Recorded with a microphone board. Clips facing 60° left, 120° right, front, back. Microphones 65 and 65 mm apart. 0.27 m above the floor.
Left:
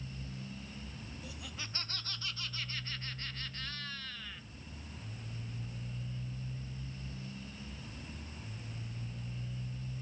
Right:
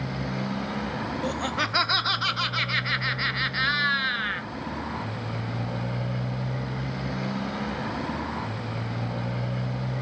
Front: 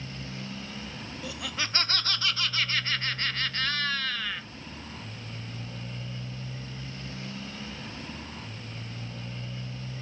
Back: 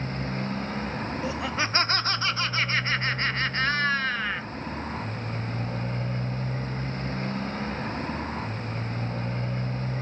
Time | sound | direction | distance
0.0 | a motorcycle | 135° right | ?
1.2 | laughter | 125° right | ?